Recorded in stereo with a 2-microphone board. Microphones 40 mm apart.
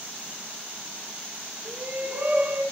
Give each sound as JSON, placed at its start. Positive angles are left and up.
{"t": 1.6, "sound": "a shout", "side_deg": -35, "distance_m": 2.0}